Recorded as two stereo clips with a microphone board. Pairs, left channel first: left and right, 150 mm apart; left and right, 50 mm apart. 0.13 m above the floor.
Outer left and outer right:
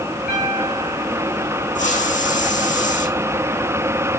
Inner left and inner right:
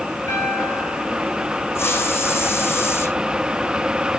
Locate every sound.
0.3 s a piano: 80° left, 6 m
1.8 s a hiss: 60° left (ahead or behind), 4.5 m